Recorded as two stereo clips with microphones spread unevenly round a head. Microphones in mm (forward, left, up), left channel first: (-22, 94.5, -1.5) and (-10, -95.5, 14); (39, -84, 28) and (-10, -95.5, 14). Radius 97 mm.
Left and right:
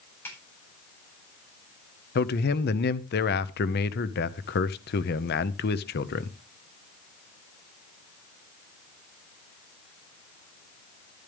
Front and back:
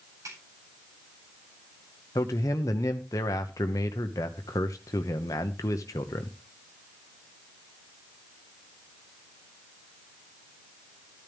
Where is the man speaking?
55° left, 0.8 m.